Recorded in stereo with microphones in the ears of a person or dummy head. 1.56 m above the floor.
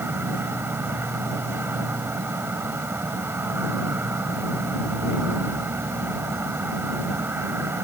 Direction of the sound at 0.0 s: 10° right (ahead or behind).